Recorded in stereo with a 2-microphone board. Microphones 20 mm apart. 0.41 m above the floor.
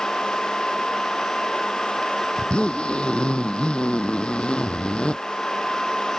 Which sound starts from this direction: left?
A zipper, at 2.4 s.